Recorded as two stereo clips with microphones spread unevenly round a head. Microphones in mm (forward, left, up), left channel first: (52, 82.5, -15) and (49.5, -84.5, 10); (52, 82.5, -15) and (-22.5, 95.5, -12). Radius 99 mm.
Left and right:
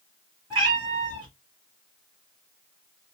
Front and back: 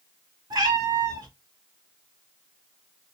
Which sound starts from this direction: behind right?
A cat meowing, at 0.5 s.